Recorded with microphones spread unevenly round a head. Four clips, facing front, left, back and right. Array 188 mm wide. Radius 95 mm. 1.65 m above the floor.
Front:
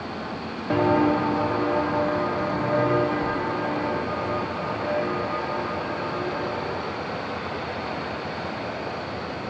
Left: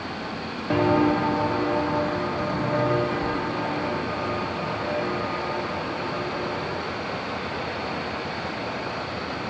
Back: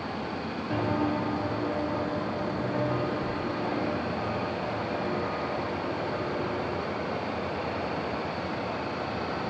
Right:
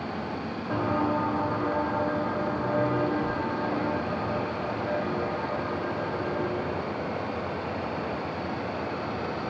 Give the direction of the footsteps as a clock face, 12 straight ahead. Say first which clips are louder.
Left 7 dB, front 8 dB; 11 o'clock.